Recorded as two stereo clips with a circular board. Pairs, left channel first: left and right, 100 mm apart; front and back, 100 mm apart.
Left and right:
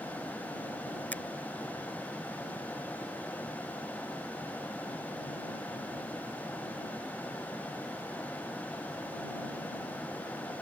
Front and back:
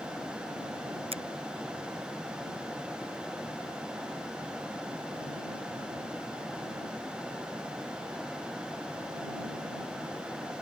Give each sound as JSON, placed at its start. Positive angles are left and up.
{"t": 1.1, "sound": "a finger snap", "azimuth_deg": 165}